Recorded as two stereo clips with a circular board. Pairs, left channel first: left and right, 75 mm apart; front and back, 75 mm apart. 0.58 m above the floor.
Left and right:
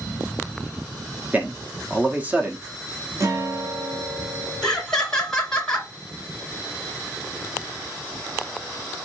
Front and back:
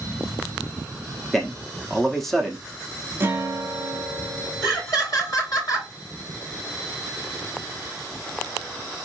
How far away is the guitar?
About 0.7 m.